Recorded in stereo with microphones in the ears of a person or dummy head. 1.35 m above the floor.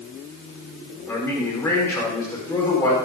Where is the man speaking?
10° left (ahead or behind), 4.5 m.